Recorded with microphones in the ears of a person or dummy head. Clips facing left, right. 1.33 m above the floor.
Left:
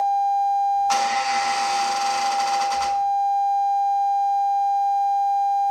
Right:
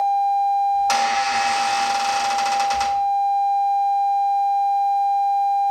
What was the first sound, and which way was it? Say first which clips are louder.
A squeak: right 1 dB; 80° right.